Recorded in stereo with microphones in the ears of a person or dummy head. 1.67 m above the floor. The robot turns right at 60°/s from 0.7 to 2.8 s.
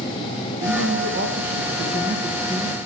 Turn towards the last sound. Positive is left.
turn(degrees=20)